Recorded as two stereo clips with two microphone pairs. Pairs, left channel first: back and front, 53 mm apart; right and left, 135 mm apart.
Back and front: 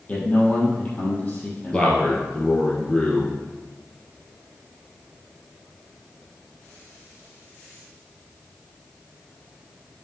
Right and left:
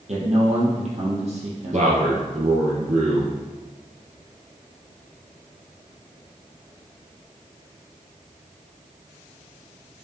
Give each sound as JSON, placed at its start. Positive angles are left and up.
{"t": 0.1, "sound": "a man speaking", "azimuth_deg": 120, "distance_m": 4.0}
{"t": 1.7, "sound": "a man speaking", "azimuth_deg": 105, "distance_m": 2.5}